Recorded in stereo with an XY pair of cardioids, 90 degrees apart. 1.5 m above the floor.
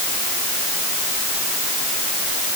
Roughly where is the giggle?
No giggle in this recording.